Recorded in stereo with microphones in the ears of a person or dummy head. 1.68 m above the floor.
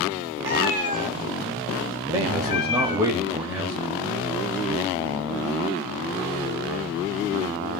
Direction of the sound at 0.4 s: 10° right (ahead or behind).